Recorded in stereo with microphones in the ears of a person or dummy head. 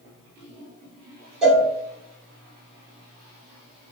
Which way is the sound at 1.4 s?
Centre (ahead or behind).